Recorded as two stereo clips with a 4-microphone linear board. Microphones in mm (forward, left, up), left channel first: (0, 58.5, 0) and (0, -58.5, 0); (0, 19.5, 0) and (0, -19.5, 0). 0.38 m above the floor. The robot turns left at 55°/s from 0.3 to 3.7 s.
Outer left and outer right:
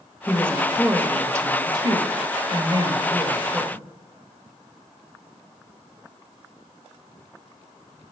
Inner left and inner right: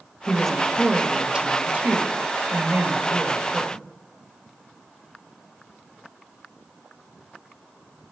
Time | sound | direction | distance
0.3 | a woman speaking | 20° left | 1.3 m